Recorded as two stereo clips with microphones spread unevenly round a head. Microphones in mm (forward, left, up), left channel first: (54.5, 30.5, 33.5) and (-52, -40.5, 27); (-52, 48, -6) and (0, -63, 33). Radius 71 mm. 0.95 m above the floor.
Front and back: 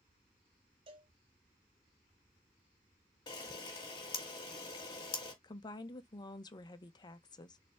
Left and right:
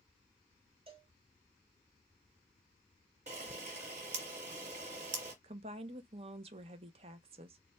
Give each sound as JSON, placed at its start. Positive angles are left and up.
{"t": 0.9, "sound": "a cowbell", "azimuth_deg": -115, "distance_m": 0.9}
{"t": 3.3, "sound": "a camera shutter", "azimuth_deg": -20, "distance_m": 1.5}
{"t": 5.4, "sound": "a woman speaking", "azimuth_deg": -15, "distance_m": 0.6}